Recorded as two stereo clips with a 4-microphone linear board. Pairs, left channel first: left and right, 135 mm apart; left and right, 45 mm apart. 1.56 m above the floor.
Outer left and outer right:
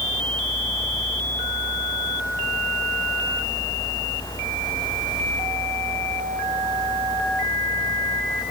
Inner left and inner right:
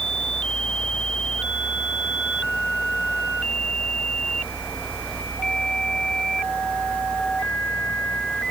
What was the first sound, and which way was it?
Only background noise.